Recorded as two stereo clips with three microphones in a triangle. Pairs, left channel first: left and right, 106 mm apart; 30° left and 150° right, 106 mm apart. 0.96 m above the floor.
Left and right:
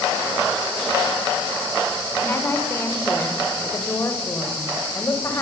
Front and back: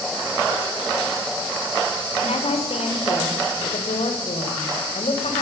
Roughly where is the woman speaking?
Ahead.